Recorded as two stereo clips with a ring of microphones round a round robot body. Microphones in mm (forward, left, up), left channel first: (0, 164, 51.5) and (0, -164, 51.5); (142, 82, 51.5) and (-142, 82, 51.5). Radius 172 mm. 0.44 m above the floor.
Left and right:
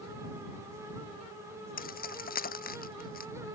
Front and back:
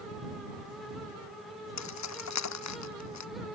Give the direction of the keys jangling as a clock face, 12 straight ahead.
11 o'clock.